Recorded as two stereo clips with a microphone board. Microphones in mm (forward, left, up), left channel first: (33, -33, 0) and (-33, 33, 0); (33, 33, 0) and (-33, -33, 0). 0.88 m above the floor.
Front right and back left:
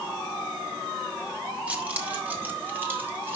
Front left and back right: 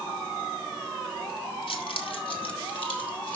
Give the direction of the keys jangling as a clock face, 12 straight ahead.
10 o'clock.